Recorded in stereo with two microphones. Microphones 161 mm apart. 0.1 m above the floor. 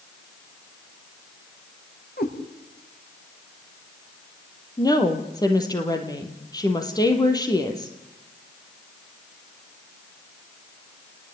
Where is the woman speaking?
25° left (ahead or behind), 3.5 m.